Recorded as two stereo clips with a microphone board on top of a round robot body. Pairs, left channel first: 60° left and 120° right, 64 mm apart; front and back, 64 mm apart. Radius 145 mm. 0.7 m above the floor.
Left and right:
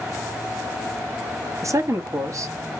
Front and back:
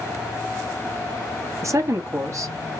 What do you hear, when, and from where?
1.6 s a woman speaking: 150° right, 1.2 m